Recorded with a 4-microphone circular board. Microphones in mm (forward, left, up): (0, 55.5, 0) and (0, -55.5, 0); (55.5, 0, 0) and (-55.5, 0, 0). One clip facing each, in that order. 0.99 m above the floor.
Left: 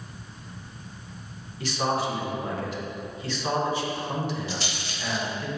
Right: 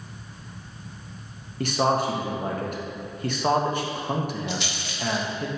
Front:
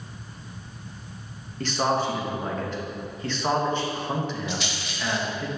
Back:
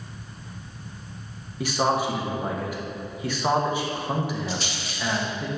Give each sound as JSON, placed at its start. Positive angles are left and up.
{"t": 1.6, "sound": "a man speaking", "azimuth_deg": -105, "distance_m": 1.2}
{"t": 4.5, "sound": "a rattle", "azimuth_deg": 135, "distance_m": 1.2}